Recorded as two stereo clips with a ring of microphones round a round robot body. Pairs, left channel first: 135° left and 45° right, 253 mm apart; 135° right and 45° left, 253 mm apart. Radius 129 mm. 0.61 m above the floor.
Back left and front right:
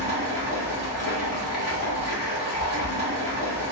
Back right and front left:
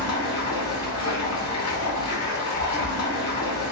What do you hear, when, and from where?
0.0 s running water: 175° right, 2 m